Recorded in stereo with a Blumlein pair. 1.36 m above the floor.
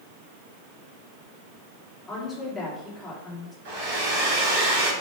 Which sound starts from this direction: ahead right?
A hair dryer, at 3.6 s.